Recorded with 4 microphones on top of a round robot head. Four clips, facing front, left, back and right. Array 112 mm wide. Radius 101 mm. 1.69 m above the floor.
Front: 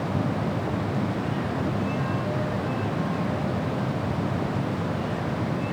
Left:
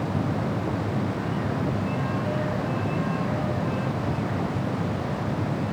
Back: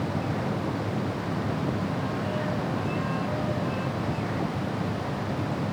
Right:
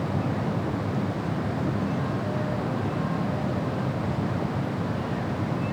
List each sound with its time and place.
Only background noise.